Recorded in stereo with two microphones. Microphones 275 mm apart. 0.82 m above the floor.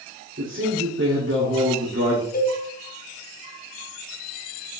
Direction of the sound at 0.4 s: 45° right (ahead or behind).